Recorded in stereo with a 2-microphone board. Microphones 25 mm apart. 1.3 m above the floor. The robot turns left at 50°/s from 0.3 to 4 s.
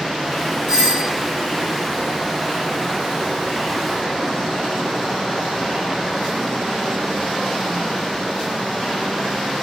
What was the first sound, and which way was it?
A doorbell, 25° right (ahead or behind).